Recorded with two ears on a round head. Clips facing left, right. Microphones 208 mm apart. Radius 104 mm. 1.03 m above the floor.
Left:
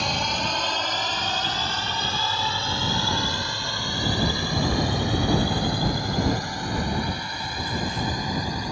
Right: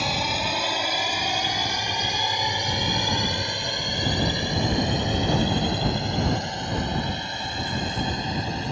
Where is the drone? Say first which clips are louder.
Even; 5° right (ahead or behind); by 8.7 s 25° right (ahead or behind).